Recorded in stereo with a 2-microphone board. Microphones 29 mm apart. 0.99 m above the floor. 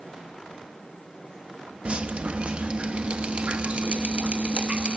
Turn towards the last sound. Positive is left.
turn(degrees=-40)  # may be behind; listen again after turning